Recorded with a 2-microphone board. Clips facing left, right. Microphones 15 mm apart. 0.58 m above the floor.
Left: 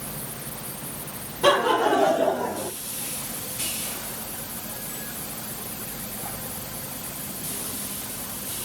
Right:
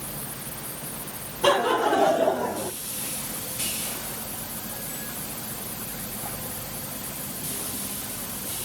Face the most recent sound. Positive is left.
turn(degrees=15)  # may be behind; listen again after turning